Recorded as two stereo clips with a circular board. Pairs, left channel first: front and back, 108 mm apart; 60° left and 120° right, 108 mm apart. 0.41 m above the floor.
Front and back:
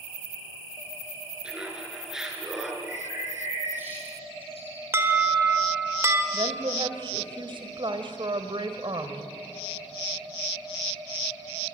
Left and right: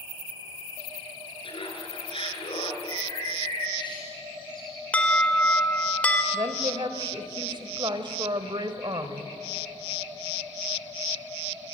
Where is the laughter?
95° left, 6.5 m; by 2.7 s 90° left, 5.5 m.